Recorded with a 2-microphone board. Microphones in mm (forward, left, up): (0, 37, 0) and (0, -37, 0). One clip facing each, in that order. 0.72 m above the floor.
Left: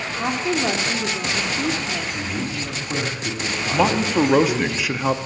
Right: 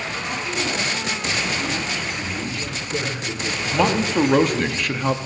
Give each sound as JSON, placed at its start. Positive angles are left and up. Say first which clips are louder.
{"t": 0.2, "sound": "a woman speaking", "louder": "left 7 dB", "side_deg": 65, "distance_m": 1.7}
{"t": 2.1, "sound": "a man speaking", "louder": "left 1 dB", "side_deg": 60, "distance_m": 4.5}
{"t": 3.7, "sound": "a man speaking", "louder": "left 1 dB", "side_deg": 5, "distance_m": 0.7}